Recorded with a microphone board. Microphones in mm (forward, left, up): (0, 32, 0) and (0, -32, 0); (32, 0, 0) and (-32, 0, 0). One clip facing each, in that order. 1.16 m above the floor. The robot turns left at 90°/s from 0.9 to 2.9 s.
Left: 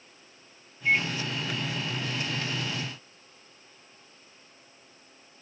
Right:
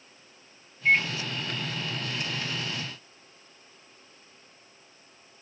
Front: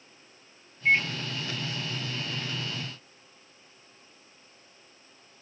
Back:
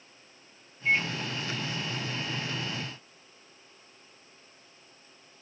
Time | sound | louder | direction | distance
0.8 | a microwave | right 2 dB, front 3 dB | 40° right | 0.7 m